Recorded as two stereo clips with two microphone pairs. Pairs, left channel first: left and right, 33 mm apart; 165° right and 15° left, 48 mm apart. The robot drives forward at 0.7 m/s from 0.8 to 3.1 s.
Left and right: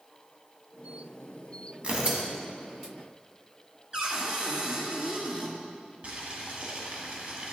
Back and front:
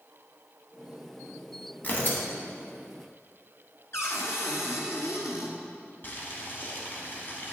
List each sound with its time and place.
1.8 s tearing paper: 130° right, 1.2 m; by 2.2 s 140° right, 1.4 m
3.9 s a cupboard door: 150° right, 1.2 m
6.0 s boiling: 125° right, 1.1 m